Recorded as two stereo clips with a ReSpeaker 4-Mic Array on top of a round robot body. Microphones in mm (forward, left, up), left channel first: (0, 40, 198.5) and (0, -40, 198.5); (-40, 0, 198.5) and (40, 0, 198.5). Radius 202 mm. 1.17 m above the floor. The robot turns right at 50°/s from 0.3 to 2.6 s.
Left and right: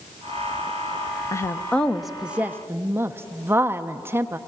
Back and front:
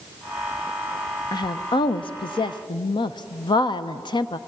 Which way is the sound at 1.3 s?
145° left.